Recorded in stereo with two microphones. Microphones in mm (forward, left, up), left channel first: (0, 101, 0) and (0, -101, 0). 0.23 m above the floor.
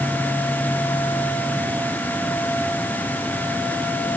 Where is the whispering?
No whispering in this recording.